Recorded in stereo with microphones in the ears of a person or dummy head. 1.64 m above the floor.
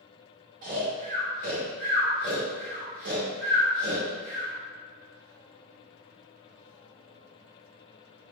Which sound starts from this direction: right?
Snoring, at 0.6 s.